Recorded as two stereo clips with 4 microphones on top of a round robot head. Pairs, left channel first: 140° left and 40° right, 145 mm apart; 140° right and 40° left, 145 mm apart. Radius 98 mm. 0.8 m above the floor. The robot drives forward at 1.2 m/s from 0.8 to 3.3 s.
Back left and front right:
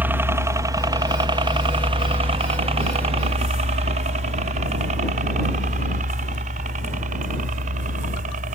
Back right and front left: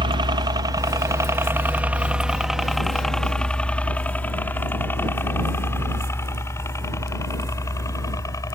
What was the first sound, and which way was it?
A helicopter, 25° left.